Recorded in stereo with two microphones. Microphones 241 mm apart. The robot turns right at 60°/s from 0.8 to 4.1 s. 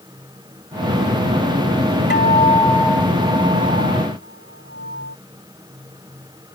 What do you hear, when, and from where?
2.1 s a guitar: 130° left; by 5.2 s 110° right